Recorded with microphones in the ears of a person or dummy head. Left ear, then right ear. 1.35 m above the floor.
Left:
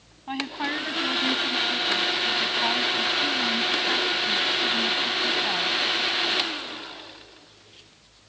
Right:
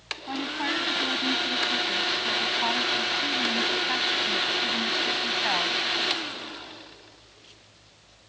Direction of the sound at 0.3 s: 5° left (ahead or behind).